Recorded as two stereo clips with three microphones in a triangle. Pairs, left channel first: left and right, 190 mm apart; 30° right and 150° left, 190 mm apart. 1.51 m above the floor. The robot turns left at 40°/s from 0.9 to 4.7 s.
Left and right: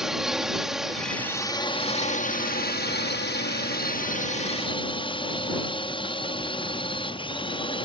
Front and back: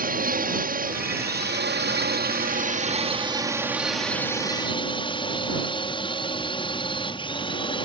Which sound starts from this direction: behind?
A drone, at 0.0 s.